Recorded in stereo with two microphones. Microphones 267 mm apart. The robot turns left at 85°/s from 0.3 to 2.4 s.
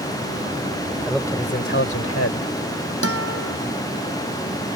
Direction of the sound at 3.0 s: 70° right (ahead or behind).